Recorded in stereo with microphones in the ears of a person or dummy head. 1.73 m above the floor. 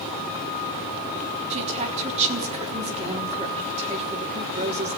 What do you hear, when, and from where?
1.5 s a woman speaking: 35° right (ahead or behind), 3.5 m